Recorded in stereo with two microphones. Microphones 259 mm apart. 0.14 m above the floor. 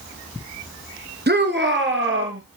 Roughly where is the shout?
Right.